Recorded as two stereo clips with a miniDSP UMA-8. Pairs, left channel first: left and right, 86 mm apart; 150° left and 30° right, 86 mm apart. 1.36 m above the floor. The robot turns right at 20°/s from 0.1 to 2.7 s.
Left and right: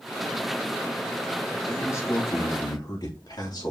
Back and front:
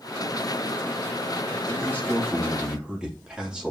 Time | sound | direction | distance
1.7 | a man speaking | 30° left | 3.5 m